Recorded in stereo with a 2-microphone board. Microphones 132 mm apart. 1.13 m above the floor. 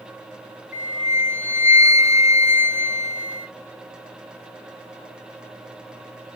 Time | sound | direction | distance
0.7 | a flute | 30° right (ahead or behind) | 1.8 m